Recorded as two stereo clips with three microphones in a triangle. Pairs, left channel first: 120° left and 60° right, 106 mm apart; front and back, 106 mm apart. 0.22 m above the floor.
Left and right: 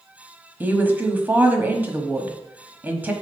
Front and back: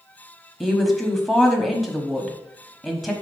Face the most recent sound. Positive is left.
turn(degrees=-90)